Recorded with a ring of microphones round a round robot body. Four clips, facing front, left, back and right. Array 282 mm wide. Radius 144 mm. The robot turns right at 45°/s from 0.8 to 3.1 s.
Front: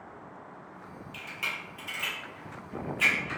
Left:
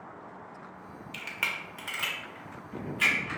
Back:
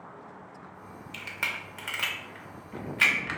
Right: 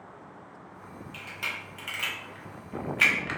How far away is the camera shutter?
About 0.5 m.